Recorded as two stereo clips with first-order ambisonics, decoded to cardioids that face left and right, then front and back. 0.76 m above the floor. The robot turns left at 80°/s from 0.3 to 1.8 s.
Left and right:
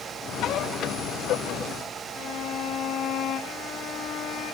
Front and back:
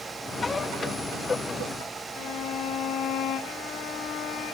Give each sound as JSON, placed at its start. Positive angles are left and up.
{"t": 2.1, "sound": "a violin", "azimuth_deg": 40, "distance_m": 1.5}